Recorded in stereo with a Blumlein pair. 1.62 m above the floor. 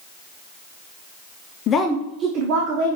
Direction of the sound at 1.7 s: 30° left.